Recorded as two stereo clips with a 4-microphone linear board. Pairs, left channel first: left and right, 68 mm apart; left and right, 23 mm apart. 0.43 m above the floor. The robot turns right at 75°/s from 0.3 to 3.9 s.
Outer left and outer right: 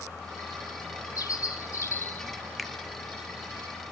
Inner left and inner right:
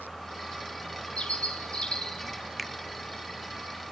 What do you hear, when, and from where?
1.2 s a bird: 75° left, 2.5 m; by 2.3 s 160° left, 2.5 m
2.6 s a finger snap: centre (ahead or behind), 0.7 m; by 2.7 s 5° right (ahead or behind), 0.7 m